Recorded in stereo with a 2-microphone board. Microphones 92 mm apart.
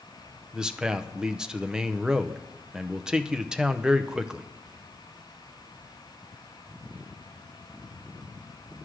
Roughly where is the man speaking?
Centre.